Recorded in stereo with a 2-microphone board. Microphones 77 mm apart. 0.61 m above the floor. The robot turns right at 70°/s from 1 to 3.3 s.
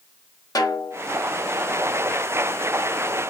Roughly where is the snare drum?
Left.